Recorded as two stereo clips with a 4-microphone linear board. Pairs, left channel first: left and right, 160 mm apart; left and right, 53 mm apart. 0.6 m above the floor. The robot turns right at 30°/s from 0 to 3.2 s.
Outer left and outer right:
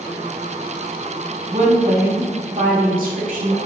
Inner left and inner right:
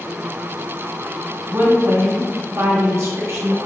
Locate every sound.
1.5 s a woman speaking: 130° right, 1.2 m; by 3.6 s 80° right, 1.2 m